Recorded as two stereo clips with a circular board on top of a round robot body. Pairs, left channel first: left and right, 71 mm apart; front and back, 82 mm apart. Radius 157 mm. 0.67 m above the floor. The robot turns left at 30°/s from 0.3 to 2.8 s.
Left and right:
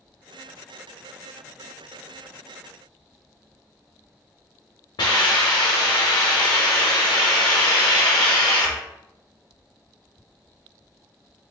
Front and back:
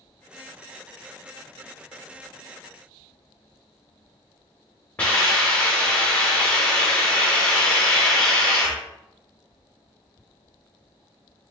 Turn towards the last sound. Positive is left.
turn(degrees=75)